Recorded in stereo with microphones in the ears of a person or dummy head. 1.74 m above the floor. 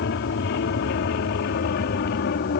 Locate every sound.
0.0 s an aircraft: 60° left (ahead or behind); by 2.6 s 55° left (ahead or behind)